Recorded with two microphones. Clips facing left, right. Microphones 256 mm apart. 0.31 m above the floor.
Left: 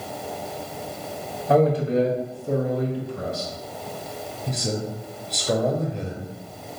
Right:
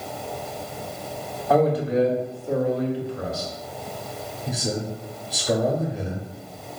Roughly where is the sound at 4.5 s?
Centre.